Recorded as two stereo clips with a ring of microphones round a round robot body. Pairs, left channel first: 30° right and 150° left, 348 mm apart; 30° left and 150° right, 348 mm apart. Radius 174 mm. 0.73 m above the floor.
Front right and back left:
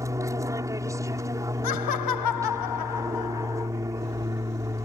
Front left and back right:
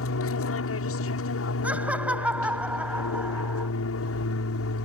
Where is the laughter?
65° right.